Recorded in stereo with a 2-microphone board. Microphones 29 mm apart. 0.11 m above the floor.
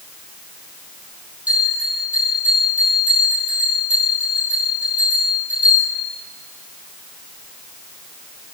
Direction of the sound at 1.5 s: 55° right (ahead or behind).